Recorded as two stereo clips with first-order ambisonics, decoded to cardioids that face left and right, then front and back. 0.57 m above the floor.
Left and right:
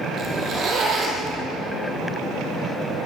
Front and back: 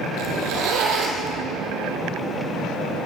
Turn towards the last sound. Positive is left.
turn(degrees=-150)